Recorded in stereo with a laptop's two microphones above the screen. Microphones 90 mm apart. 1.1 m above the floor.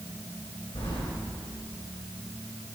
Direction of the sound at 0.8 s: 80° left.